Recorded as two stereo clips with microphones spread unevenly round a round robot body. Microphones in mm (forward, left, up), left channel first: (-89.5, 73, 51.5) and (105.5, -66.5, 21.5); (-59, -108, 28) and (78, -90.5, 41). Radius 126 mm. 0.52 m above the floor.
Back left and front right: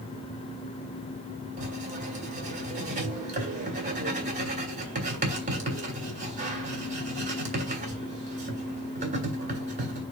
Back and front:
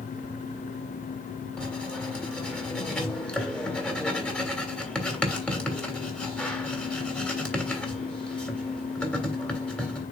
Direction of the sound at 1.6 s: 95° right.